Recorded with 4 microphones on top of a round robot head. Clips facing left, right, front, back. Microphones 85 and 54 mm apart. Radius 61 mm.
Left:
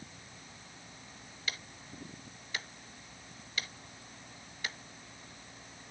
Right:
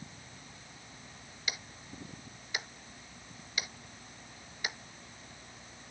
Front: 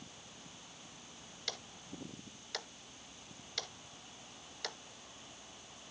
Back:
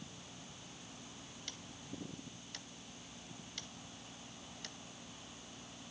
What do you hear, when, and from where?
1.5 s ticking: 15° right